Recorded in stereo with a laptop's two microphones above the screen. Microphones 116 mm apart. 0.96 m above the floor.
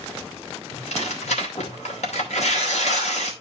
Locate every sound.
0.7 s tearing paper: 80° left, 2.5 m